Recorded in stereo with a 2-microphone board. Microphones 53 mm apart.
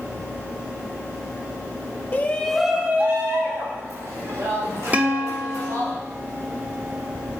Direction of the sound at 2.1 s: 35° left (ahead or behind).